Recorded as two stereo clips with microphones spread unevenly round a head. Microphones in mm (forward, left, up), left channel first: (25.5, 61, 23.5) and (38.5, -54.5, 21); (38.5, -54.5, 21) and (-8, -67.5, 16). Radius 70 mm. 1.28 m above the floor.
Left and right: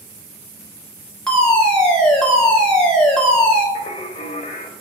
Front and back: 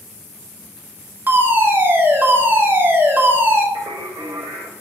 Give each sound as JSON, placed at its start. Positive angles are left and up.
{"t": 1.3, "sound": "a fire alarm", "azimuth_deg": 180, "distance_m": 1.8}
{"t": 3.8, "sound": "singing", "azimuth_deg": 155, "distance_m": 1.4}